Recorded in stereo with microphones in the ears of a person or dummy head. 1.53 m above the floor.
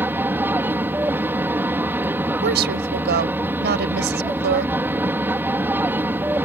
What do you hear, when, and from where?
0.0 s an aircraft: 10° right (ahead or behind)
2.4 s a woman speaking: 55° right (ahead or behind)